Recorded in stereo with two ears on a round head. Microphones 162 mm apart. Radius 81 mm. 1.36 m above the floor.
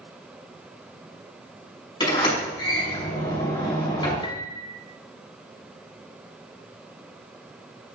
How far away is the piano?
About 0.7 m.